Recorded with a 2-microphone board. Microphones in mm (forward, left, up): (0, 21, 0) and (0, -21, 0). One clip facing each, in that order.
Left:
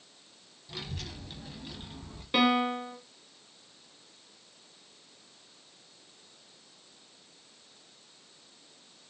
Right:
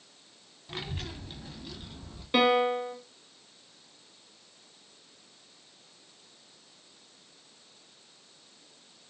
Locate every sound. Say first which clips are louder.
0.7 s a child speaking: right 3 dB; 35° right (ahead or behind), 0.7 m; by 2.2 s 35° left (ahead or behind), 0.8 m
2.3 s a piano: right 2 dB; centre (ahead or behind), 0.6 m